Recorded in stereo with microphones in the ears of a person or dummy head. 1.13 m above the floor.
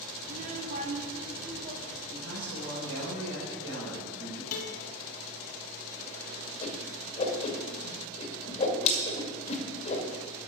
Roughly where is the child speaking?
Right.